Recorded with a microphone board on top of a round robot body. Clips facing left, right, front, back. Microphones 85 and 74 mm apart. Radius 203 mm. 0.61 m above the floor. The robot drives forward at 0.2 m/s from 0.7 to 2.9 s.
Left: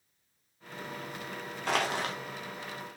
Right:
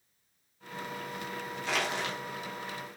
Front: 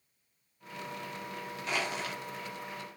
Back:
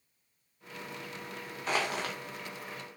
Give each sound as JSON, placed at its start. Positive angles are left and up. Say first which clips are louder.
{"t": 1.7, "sound": "crushing", "louder": "left 3 dB, back 3 dB", "azimuth_deg": 130, "distance_m": 0.6}